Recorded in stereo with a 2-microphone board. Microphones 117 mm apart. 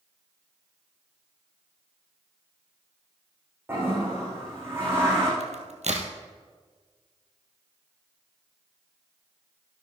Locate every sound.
3.7 s a toilet flushing: 20° right (ahead or behind), 5.5 m
5.4 s a crack: 75° right (ahead or behind), 1.8 m